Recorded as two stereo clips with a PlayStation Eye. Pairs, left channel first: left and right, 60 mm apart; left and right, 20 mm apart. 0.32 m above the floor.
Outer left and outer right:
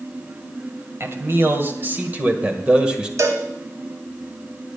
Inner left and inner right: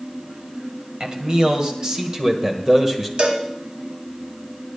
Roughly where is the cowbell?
Right.